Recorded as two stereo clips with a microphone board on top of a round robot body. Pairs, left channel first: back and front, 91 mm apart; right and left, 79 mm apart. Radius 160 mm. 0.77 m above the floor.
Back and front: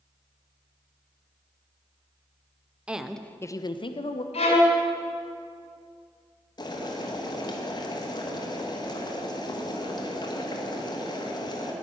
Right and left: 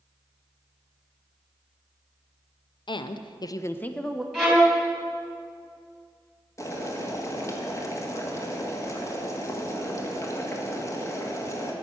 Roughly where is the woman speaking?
Right.